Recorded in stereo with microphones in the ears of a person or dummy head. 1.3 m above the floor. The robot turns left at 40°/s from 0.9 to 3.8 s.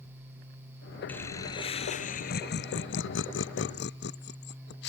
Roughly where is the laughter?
Centre.